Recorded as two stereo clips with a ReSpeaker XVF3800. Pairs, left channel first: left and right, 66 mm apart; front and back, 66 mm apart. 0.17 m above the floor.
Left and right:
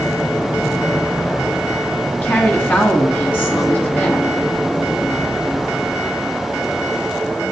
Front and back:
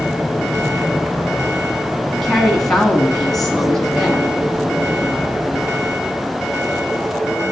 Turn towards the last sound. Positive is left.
turn(degrees=80)